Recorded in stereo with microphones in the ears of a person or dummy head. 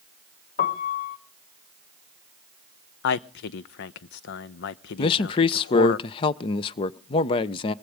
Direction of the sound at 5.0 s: 35° left (ahead or behind).